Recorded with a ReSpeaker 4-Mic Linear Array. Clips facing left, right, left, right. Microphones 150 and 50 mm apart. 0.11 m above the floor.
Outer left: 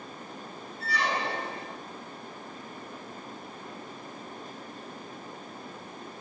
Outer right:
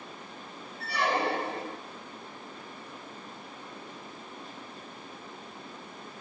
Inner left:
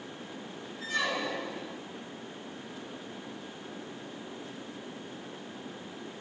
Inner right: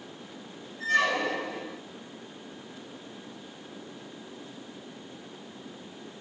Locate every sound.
0.8 s a squeak: 60° right (ahead or behind), 0.8 m